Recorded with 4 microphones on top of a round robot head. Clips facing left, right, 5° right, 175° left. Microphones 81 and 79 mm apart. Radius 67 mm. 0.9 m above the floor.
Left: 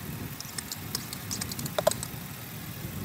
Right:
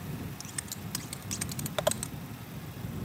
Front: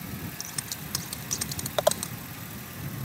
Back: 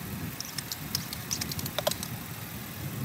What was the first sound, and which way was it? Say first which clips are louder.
Scissors: left 1 dB, front 1 dB; 30° left.